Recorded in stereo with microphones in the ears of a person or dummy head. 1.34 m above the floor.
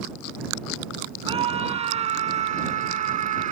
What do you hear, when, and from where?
1.3 s a scream: 25° right (ahead or behind); by 3.5 s 35° right (ahead or behind)